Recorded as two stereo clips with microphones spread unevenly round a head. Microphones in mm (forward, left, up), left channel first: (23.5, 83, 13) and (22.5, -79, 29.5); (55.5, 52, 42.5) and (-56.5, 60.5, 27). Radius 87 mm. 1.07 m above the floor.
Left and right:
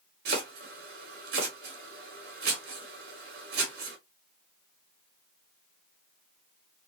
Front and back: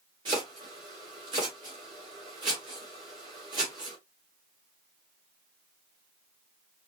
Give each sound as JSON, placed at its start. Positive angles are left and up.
{"t": 0.2, "sound": "chopping", "azimuth_deg": -125, "distance_m": 2.0}